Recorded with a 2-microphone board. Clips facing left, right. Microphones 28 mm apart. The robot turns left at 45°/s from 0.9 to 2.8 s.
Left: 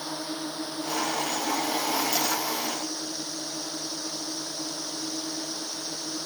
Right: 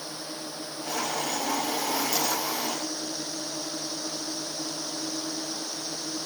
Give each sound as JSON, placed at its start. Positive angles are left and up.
{"t": 0.0, "sound": "a drone", "azimuth_deg": 90}